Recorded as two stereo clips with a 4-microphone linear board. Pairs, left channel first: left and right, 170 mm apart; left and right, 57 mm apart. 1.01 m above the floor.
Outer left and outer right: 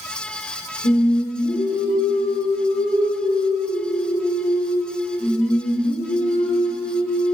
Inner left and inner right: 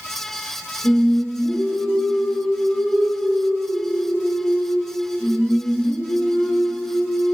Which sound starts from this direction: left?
Singing, at 0.8 s.